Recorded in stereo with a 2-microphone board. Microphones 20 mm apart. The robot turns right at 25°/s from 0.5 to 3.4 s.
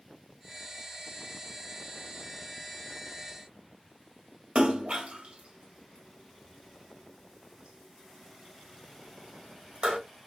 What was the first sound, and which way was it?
A splash, 65° right (ahead or behind).